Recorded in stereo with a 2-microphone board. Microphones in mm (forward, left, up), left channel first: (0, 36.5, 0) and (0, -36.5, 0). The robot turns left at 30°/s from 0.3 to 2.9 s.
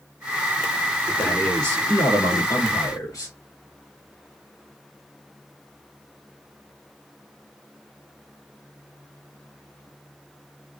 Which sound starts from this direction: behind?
A man speaking, at 1.2 s.